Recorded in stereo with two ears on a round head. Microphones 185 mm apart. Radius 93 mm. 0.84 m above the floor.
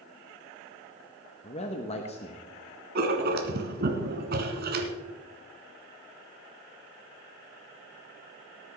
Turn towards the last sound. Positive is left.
turn(degrees=-50)  # may be behind; listen again after turning